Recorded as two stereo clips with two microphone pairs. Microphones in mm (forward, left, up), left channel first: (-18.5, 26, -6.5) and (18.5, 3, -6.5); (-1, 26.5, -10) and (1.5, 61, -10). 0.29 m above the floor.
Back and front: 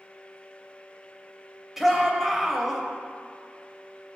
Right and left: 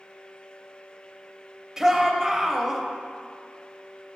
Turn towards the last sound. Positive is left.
turn(degrees=50)